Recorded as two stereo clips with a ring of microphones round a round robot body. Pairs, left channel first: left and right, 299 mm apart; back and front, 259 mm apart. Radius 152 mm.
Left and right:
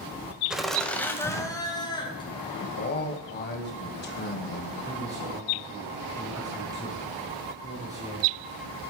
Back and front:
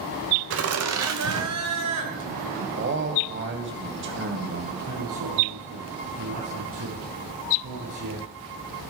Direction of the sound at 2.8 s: 35° left.